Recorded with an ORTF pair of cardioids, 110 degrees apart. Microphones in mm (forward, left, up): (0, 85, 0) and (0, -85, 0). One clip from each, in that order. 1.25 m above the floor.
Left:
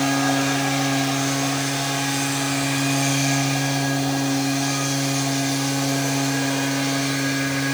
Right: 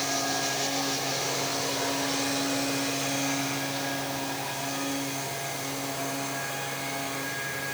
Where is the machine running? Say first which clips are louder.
Left 7 dB; 55° left, 3 m.